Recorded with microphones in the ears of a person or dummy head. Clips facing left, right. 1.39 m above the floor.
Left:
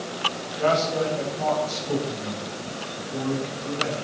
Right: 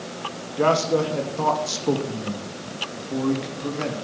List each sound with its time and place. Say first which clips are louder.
0.6 s a man speaking: right 3 dB; 60° right (ahead or behind), 2.5 m; by 3.9 s 70° right (ahead or behind), 3.5 m